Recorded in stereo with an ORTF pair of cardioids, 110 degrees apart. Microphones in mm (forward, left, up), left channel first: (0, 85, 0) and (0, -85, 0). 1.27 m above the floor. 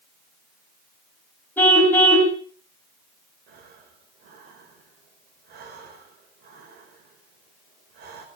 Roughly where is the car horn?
Ahead.